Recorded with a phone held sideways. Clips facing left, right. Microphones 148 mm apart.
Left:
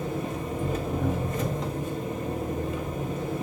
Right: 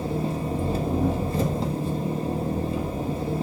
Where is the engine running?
30° right (ahead or behind), 1.5 m.